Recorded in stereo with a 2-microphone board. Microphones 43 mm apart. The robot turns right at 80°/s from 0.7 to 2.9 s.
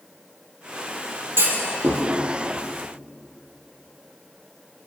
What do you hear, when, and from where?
1.4 s a clunk: 75° right (ahead or behind), 4.5 m; by 2.0 s 50° right (ahead or behind), 4.5 m